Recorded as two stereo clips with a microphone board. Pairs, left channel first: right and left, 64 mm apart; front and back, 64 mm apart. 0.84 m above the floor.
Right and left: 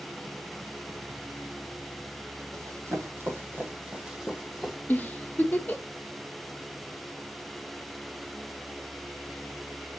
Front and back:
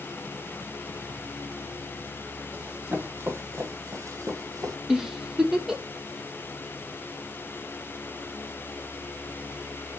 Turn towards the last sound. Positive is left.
turn(degrees=-105)